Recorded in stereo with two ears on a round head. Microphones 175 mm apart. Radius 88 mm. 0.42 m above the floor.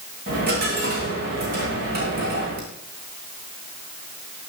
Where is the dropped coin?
50° right (ahead or behind), 6 m.